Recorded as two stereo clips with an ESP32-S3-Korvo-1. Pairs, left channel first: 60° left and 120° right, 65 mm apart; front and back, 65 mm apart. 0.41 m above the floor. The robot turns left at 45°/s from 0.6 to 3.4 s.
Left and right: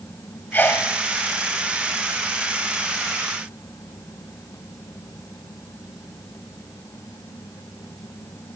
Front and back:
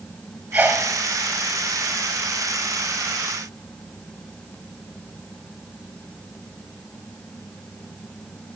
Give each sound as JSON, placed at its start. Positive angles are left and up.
{"t": 0.5, "sound": "a sneeze", "azimuth_deg": 115, "distance_m": 2.0}